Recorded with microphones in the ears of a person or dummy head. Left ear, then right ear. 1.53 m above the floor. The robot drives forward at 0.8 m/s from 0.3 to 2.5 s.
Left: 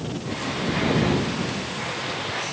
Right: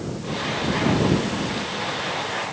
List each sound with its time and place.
Only background noise.